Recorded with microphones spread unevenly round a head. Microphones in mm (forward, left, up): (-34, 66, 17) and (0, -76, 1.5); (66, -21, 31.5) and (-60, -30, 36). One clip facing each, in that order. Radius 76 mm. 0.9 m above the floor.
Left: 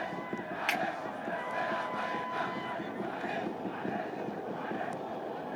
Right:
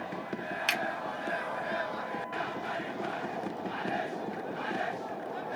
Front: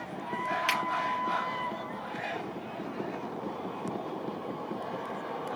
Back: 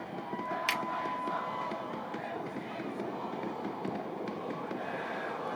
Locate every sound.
0.7 s a finger snap: 120° right, 1.5 m